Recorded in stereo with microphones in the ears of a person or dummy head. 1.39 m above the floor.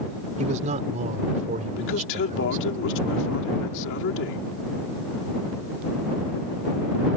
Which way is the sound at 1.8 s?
70° left (ahead or behind).